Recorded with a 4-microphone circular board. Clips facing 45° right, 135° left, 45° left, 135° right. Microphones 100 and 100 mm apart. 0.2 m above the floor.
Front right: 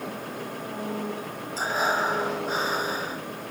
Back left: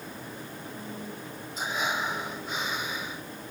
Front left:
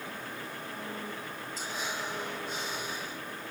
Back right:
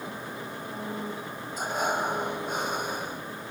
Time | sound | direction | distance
0.0 | an engine running | 65° right | ?
1.6 | breathing | 100° right | ?